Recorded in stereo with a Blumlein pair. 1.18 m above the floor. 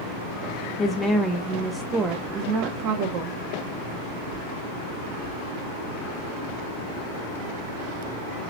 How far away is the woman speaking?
About 1.3 m.